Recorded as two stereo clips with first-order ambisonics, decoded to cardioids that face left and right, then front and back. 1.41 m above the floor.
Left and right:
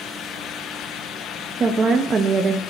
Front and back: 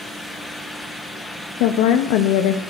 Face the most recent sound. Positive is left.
turn(degrees=-20)